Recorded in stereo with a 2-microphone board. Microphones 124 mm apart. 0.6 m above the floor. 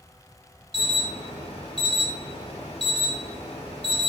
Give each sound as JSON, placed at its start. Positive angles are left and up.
{"t": 0.7, "sound": "an alarm", "side_deg": 50, "distance_m": 1.3}